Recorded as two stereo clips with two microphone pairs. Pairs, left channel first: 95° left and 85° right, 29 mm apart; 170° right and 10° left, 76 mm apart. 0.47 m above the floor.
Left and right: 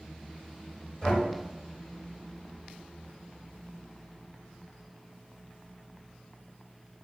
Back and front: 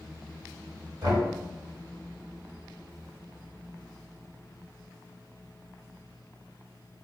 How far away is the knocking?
About 1.2 m.